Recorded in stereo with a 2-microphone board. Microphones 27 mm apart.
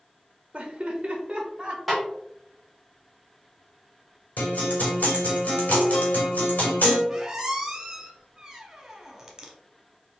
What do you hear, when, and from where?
0.5 s laughter: 40° right (ahead or behind), 0.5 m; by 1.8 s 25° right (ahead or behind), 1.2 m
1.9 s a snare drum: centre (ahead or behind), 1.5 m
4.4 s a guitar: 75° left (ahead or behind), 1.4 m
7.1 s a squeak: 15° right (ahead or behind), 0.9 m